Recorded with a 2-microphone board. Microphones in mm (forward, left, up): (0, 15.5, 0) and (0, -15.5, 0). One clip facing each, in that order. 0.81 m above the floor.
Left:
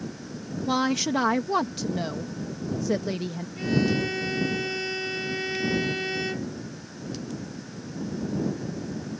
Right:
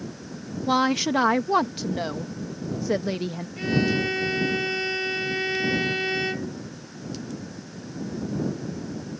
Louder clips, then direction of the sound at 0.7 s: Right 3 dB; 20° right (ahead or behind).